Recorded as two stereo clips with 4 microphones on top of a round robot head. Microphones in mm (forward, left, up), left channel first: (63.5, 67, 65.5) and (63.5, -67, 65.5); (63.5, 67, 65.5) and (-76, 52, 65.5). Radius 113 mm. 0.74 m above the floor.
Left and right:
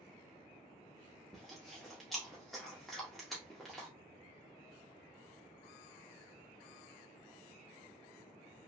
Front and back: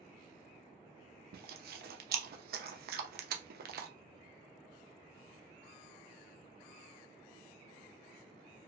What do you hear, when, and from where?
1.3 s chewing: straight behind, 0.5 m